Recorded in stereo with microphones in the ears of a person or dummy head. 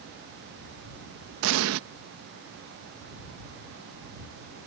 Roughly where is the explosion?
Right.